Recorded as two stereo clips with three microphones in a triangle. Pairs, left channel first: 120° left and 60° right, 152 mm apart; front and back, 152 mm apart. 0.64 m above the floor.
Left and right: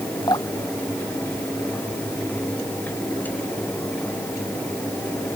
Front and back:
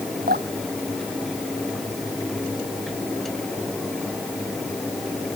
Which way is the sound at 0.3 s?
175° right.